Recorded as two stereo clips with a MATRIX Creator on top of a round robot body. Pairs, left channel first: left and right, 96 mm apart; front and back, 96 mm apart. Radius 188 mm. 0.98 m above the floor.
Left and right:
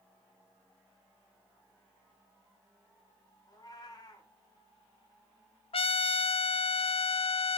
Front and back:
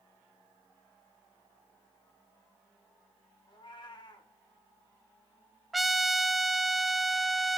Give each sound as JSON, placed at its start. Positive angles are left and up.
{"t": 3.5, "sound": "a cat meowing", "azimuth_deg": 40, "distance_m": 1.3}
{"t": 5.7, "sound": "a trumpet", "azimuth_deg": 90, "distance_m": 0.5}